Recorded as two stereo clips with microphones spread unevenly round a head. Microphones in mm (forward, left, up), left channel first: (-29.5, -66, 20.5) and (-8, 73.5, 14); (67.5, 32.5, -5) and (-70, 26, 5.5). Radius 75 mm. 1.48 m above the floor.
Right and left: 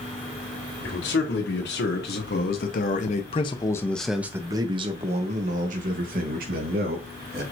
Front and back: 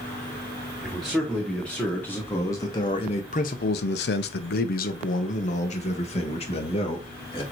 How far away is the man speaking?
About 2.5 m.